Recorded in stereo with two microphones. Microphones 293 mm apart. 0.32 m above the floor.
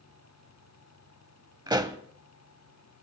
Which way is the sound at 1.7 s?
15° right (ahead or behind).